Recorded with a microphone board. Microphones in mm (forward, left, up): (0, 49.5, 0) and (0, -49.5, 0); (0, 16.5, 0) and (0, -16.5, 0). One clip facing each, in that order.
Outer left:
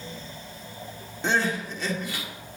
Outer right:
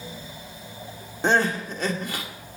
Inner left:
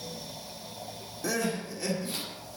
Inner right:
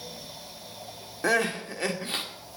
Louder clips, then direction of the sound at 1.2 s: Outer right 4 dB, inner right 6 dB; 50° right (ahead or behind).